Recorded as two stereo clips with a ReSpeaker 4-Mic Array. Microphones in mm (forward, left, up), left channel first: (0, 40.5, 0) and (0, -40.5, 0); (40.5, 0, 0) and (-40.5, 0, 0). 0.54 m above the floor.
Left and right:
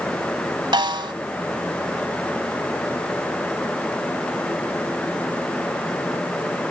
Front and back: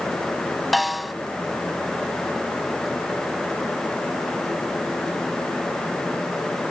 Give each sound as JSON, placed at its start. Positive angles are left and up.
{"t": 0.7, "sound": "a snare drum", "azimuth_deg": -90}